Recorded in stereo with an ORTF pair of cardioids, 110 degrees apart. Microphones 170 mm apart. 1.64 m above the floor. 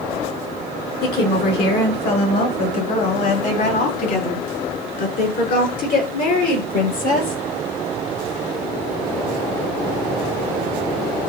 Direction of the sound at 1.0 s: 70° left.